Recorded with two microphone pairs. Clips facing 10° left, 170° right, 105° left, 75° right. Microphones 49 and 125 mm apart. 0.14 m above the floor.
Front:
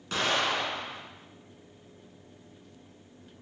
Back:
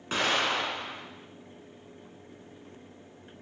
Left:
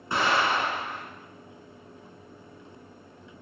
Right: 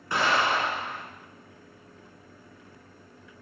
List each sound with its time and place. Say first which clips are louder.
0.1 s an explosion: back 1 dB, even; 145° left, 1.0 m